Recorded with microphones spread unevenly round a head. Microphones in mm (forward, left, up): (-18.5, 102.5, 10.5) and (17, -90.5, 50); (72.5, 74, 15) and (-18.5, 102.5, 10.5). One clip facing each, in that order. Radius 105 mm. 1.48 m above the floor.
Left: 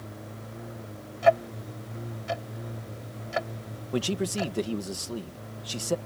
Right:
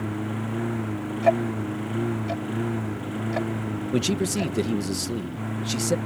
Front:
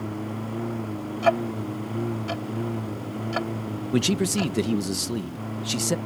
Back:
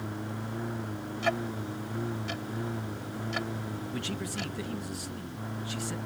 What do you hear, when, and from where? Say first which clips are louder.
0.0 s a lawn mower: right 14 dB, front 6 dB; 85° right
1.2 s ticking: right 1 dB, front 9 dB; 15° left
3.9 s a man speaking: right 3 dB, front 16 dB; 15° right